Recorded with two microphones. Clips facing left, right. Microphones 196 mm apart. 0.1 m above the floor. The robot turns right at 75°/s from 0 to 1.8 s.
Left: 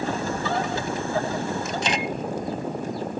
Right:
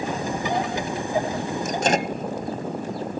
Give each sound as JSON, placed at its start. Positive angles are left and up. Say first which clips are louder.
{"t": 1.6, "sound": "a microwave", "louder": "right 4 dB", "side_deg": -50}